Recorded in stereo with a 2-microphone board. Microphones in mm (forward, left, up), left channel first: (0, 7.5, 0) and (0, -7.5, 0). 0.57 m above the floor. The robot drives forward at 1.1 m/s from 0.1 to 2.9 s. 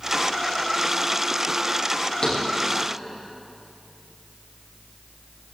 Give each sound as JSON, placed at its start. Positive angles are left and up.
{"t": 2.2, "sound": "a thud", "side_deg": 55, "distance_m": 7.5}